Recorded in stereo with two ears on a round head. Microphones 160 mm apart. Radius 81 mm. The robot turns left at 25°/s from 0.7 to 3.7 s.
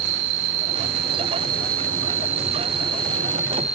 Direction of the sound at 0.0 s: 100° right.